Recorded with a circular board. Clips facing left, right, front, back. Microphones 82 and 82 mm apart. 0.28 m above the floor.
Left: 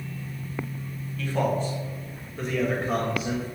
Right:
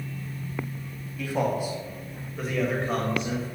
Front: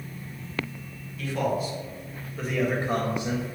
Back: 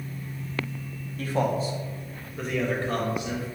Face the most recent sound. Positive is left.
turn(degrees=10)